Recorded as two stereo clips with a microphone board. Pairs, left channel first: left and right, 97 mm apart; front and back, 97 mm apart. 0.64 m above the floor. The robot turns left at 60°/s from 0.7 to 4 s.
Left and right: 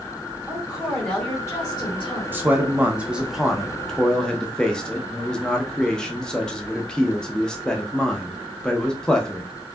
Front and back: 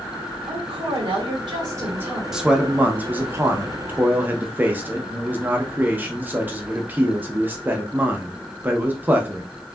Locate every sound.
0.5 s a woman speaking: 170° right, 1.5 m; by 2.2 s 100° left, 1.5 m
2.3 s a man speaking: 105° right, 0.6 m; by 9.4 s 155° left, 0.6 m